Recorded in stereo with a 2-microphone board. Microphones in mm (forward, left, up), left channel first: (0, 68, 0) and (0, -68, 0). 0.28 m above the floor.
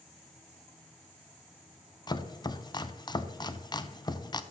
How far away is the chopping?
About 0.5 m.